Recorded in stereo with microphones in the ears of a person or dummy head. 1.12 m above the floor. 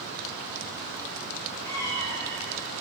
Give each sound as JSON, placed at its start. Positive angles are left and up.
{"t": 1.6, "sound": "a cat meowing", "side_deg": 10, "distance_m": 7.0}